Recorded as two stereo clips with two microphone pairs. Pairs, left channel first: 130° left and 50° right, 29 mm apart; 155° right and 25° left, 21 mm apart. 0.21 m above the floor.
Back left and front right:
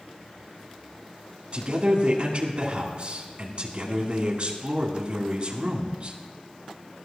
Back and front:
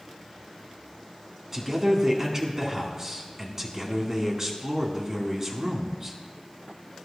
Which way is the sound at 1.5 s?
30° right.